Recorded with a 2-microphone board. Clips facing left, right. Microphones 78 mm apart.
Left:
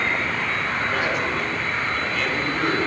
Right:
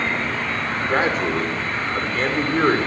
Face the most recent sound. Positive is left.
turn(degrees=-40)  # may be behind; listen again after turning